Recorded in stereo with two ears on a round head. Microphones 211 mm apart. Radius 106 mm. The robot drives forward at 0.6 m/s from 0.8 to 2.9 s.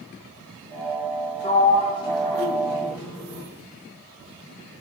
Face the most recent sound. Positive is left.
turn(degrees=10)  # may be behind; listen again after turning